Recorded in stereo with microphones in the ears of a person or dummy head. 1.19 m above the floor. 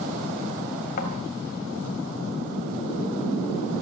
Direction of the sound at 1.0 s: 50° left (ahead or behind).